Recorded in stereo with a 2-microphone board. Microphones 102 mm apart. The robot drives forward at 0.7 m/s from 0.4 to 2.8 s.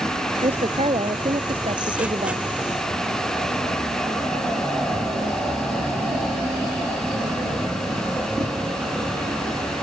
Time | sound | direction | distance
0.4 | a woman speaking | 80° right | ?